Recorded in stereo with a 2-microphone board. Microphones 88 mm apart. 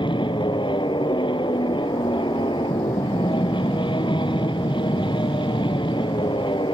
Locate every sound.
0.0 s an aircraft: 65° left (ahead or behind)